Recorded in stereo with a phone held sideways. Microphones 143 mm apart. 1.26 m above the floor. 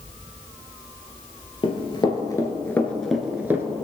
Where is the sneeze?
I don't hear a sneeze.